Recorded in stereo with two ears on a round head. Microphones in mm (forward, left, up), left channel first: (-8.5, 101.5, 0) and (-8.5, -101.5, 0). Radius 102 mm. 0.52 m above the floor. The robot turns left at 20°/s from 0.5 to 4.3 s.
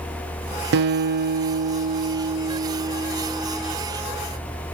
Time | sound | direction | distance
0.7 | a guitar | 125° right | 0.6 m